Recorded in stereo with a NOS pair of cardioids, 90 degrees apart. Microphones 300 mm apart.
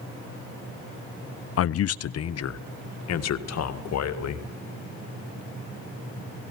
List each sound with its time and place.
1.6 s a man speaking: 50° left, 0.7 m; by 4.5 s 55° left, 2.5 m